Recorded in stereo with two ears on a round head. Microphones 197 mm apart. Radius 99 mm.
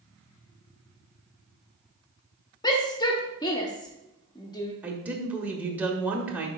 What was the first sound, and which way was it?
A shout, 20° left (ahead or behind).